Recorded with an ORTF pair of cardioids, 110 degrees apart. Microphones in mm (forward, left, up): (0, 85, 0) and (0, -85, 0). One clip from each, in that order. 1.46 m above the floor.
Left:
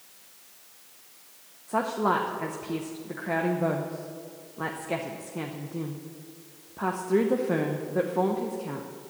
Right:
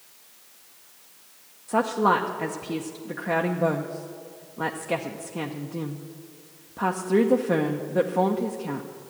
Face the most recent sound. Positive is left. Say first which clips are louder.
# right 4 dB
turn(degrees=-15)